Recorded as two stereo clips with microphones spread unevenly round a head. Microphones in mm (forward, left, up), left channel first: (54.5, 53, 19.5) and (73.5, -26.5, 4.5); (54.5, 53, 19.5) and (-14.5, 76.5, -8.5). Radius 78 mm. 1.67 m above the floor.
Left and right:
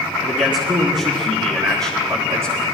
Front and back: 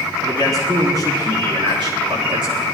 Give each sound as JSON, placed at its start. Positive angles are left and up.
{"t": 0.2, "sound": "a man speaking", "azimuth_deg": -130, "distance_m": 4.5}